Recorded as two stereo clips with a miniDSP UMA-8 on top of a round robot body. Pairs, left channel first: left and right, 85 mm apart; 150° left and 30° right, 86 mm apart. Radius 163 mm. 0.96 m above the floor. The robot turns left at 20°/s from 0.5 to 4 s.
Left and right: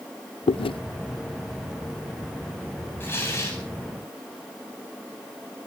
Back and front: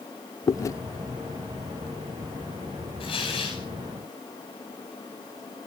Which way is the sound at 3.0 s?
155° left.